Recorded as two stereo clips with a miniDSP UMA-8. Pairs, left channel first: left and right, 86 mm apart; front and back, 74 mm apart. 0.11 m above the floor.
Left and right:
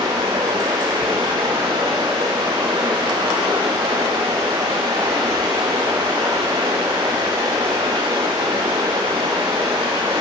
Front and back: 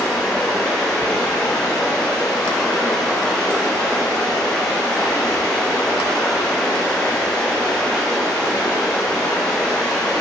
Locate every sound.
0.0 s running water: 80° right, 3.5 m